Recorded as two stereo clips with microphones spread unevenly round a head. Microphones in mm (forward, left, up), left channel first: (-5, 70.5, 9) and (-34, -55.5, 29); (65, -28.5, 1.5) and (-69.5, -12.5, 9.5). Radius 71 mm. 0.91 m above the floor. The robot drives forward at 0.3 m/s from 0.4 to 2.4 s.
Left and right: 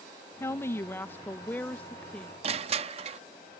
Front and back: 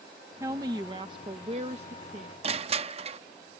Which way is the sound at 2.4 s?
145° right.